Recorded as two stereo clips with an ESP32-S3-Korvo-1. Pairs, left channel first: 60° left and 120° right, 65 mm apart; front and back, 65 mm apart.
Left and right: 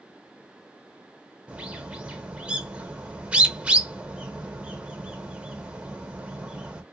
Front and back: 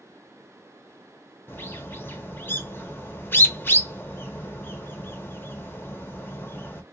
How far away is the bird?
About 0.8 m.